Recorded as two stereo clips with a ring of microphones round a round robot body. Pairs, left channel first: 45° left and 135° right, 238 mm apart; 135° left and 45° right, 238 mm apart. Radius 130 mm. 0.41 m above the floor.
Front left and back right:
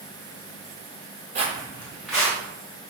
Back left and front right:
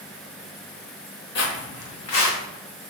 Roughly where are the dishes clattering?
I don't hear dishes clattering.